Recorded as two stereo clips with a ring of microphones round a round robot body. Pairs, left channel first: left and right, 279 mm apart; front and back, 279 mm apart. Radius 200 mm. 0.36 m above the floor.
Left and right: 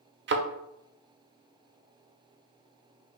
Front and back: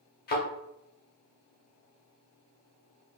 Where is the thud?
50° right, 0.6 m.